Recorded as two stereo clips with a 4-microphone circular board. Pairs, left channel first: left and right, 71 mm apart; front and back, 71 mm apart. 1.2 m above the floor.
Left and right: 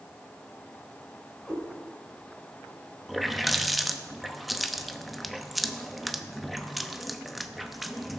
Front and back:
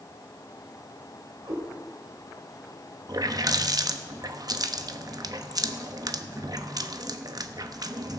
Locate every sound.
1.4 s a cat meowing: 175° left, 5.5 m
3.1 s a running tap: straight behind, 0.8 m